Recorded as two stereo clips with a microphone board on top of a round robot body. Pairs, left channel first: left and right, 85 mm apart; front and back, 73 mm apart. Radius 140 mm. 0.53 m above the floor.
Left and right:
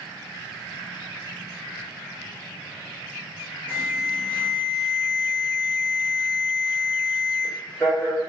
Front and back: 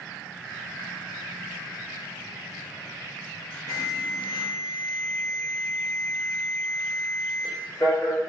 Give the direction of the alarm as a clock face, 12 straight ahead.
11 o'clock.